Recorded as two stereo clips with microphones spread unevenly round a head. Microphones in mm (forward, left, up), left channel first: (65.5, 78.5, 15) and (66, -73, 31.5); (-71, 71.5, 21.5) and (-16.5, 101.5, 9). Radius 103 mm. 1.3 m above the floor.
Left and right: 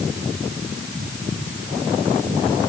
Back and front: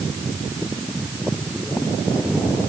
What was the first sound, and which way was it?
Only background noise.